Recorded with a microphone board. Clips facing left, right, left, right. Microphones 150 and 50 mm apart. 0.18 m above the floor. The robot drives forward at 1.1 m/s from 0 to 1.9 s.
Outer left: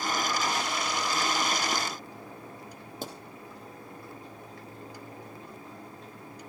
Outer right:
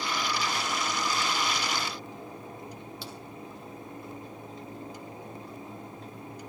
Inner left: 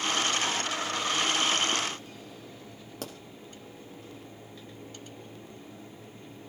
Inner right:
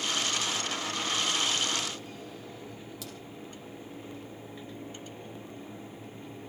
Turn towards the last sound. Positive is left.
turn(degrees=45)  # may be behind; listen again after turning